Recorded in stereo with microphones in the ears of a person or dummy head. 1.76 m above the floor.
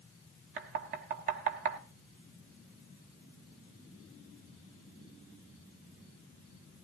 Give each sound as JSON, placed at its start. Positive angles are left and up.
{"t": 0.6, "sound": "knocking", "side_deg": -40, "distance_m": 1.2}